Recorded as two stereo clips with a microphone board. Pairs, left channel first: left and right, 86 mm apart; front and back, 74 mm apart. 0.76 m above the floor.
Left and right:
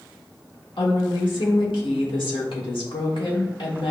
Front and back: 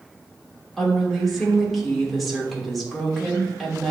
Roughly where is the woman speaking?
Left.